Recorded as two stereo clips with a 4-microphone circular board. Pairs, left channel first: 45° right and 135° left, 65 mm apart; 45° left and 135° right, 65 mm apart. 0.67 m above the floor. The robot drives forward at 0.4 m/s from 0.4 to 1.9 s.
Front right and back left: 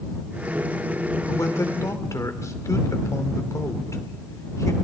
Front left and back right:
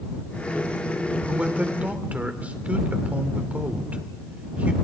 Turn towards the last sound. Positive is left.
turn(degrees=-75)